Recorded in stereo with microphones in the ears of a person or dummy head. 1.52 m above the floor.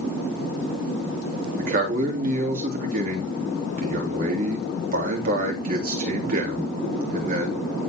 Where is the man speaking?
45° right (ahead or behind), 3 m.